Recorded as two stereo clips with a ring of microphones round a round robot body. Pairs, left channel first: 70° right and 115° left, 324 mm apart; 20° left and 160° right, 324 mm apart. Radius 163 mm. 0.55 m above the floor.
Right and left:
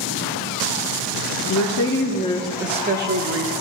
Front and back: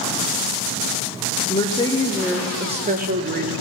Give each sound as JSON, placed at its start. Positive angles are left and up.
{"t": 1.5, "sound": "a woman speaking", "azimuth_deg": -45, "distance_m": 0.9}